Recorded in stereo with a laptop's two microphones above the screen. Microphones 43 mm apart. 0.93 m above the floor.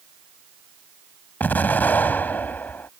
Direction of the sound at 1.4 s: 45° left (ahead or behind).